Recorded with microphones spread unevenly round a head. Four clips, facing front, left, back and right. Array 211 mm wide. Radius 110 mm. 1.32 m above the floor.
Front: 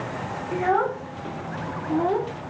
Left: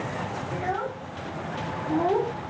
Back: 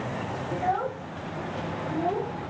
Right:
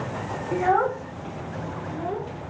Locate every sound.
0.5 s a child speaking: 55° right, 0.8 m; by 2.3 s 50° left, 0.8 m